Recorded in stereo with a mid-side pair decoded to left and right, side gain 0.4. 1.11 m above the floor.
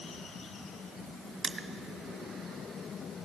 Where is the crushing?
45° right, 0.6 m.